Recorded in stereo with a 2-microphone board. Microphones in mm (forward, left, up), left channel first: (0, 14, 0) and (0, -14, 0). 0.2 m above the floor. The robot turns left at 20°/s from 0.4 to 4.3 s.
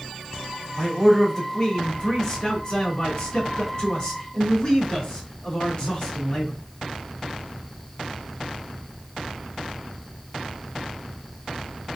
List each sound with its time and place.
0.8 s a man speaking: 145° left, 1.9 m; by 6.5 s 75° left, 1.9 m